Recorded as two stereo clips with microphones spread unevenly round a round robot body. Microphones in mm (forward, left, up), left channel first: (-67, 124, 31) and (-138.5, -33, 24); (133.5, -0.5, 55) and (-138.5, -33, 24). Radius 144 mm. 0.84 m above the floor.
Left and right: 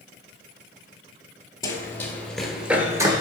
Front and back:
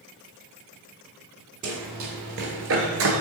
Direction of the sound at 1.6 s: 130° left.